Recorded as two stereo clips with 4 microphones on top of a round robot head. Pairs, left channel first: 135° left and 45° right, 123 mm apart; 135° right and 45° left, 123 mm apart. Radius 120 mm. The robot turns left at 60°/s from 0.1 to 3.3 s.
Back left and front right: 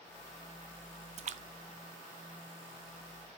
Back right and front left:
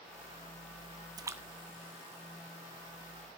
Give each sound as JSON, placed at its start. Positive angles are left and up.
{"t": 1.2, "sound": "a splash", "azimuth_deg": -15, "distance_m": 0.6}